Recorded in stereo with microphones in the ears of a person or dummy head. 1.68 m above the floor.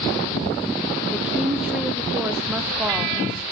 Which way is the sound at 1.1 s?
5° right (ahead or behind).